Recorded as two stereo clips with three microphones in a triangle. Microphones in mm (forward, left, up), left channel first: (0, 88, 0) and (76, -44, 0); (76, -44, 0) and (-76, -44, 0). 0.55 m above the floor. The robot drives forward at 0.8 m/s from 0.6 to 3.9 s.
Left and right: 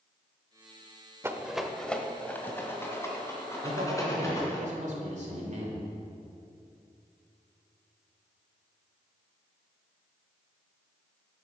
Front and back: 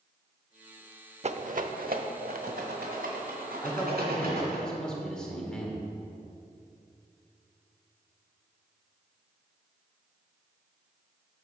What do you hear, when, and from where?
1.2 s a rattle: 130° right, 0.5 m; by 4.6 s 170° right, 2.5 m
3.6 s a man speaking: 75° right, 2 m; by 5.9 s 85° right, 2.0 m